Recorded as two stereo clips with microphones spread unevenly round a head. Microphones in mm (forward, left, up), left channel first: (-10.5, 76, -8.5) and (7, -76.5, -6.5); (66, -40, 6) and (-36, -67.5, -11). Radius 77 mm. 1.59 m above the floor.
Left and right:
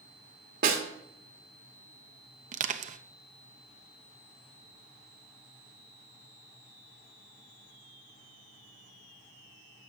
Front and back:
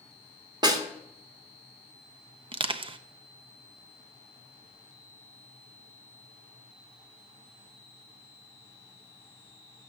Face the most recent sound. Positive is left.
turn(degrees=-130)